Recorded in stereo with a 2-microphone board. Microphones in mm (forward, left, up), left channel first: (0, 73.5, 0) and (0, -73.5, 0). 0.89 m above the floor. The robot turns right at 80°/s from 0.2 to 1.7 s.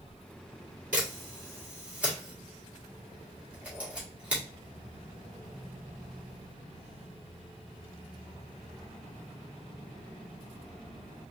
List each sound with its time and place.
0.9 s a camera shutter: 70° right (ahead or behind), 1.9 m; by 4.4 s 10° right (ahead or behind), 1.9 m